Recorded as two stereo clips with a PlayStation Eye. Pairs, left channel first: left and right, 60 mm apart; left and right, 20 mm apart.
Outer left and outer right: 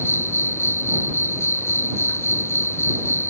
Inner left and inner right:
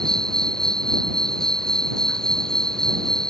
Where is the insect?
45° left (ahead or behind).